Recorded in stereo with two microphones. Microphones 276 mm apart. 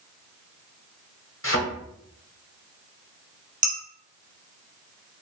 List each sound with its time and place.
1.4 s a thud: 50° left (ahead or behind), 0.8 m
3.6 s dishes clattering: 30° right (ahead or behind), 1.2 m